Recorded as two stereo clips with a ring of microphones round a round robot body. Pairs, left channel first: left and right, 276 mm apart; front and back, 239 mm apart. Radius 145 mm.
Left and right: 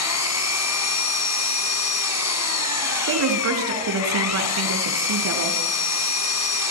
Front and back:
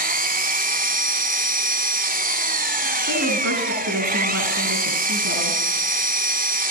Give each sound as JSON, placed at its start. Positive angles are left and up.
{"t": 0.0, "sound": "an engine running", "azimuth_deg": 125, "distance_m": 1.5}
{"t": 3.1, "sound": "a woman speaking", "azimuth_deg": -130, "distance_m": 4.0}